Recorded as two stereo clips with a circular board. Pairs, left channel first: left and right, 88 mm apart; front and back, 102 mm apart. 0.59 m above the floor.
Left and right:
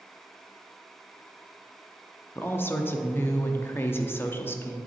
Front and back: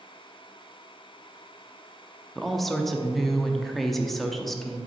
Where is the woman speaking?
85° left, 0.7 m.